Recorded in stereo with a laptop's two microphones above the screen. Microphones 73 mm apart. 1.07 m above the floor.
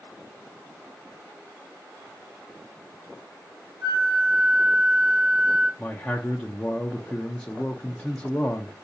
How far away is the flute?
About 1.9 m.